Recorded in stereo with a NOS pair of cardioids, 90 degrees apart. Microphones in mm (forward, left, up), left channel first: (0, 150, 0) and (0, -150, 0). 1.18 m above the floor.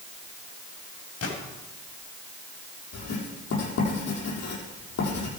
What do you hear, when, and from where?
1.2 s a gunshot: 50° left, 6.5 m
2.9 s writing: 60° left, 7 m